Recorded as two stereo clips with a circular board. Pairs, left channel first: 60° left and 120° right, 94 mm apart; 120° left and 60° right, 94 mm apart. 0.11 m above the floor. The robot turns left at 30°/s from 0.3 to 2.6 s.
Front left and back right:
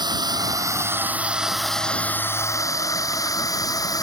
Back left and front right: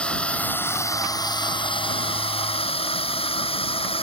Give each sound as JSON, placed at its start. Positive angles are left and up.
{"t": 0.0, "sound": "a drone", "azimuth_deg": -160}